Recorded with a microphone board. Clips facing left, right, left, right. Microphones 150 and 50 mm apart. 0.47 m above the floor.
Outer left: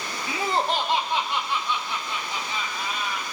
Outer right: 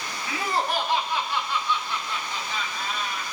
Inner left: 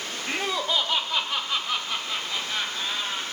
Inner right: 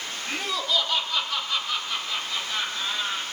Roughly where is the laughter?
Left.